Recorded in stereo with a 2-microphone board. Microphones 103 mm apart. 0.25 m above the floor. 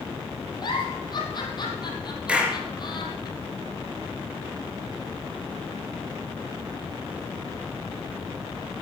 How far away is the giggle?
About 3.5 m.